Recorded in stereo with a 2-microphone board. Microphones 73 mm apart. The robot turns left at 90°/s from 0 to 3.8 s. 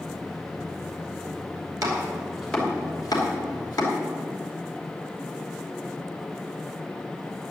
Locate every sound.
1.8 s chopping: 55° right (ahead or behind), 2.5 m; by 3.9 s 55° left (ahead or behind), 2.5 m